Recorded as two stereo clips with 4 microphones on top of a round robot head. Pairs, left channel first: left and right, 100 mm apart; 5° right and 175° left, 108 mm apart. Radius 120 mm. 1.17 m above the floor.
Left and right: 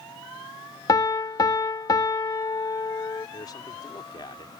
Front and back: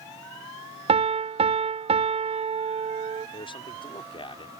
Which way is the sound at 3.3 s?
35° left.